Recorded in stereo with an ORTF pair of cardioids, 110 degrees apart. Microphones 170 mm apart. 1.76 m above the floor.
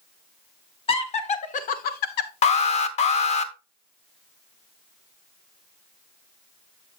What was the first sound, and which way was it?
Laughter, 35° left.